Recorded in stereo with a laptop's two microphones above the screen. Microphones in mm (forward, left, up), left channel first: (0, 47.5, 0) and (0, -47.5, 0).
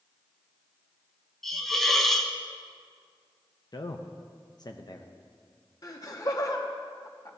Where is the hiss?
5° left (ahead or behind), 0.9 m.